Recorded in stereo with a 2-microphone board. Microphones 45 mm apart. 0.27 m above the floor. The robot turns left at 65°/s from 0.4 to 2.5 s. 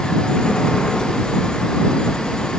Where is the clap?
I don't hear a clap.